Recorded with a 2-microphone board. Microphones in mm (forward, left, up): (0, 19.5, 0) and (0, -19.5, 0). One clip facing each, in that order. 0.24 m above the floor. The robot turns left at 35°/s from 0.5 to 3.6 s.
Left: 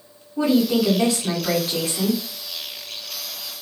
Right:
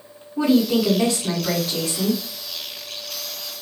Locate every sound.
0.4 s a woman speaking: 175° left, 1.6 m; by 2.2 s 115° left, 1.6 m